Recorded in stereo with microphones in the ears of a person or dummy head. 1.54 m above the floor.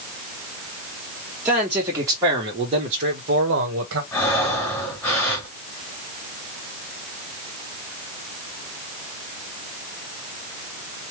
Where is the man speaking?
5° right (ahead or behind), 1.3 m; by 4.0 s 65° right (ahead or behind), 1.0 m.